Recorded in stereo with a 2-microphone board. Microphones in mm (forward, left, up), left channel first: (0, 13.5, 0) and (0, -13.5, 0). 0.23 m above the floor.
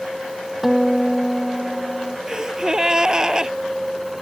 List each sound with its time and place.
0.6 s a guitar: 10° right (ahead or behind)
2.3 s a gasp: 25° right (ahead or behind)